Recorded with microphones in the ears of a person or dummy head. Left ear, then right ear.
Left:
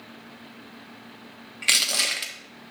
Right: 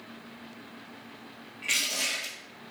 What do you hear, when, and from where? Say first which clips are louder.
1.6 s crushing: left 7 dB; 60° left (ahead or behind), 1.2 m